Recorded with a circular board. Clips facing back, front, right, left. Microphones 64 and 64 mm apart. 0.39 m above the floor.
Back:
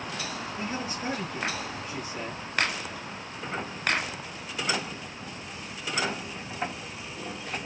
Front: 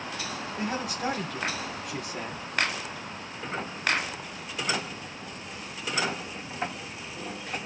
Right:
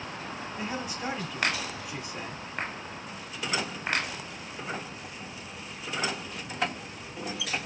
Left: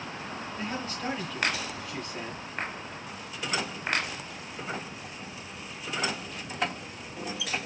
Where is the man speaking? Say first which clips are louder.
Front 4 dB, even; 15° right, 2.5 m.